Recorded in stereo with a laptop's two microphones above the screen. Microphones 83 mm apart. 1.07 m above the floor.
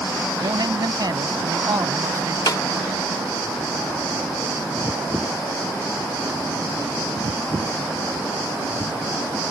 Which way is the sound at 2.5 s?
50° left (ahead or behind).